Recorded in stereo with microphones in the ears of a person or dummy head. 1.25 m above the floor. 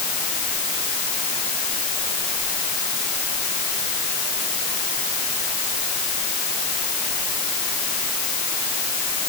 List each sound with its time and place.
Only background noise.